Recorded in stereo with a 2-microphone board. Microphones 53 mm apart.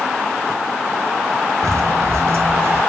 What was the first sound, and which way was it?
Footsteps, 65° right (ahead or behind).